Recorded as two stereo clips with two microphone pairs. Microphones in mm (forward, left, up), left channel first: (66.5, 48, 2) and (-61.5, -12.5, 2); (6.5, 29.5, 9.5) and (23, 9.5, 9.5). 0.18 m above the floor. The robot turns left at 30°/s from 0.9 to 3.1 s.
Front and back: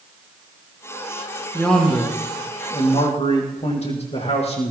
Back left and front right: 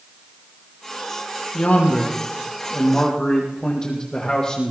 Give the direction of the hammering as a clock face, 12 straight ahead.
I don't hear hammering.